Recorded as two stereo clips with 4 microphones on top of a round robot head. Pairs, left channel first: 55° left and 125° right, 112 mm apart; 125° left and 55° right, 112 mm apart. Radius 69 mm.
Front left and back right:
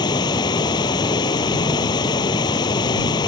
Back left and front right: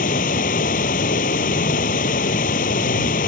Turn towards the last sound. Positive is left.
turn(degrees=110)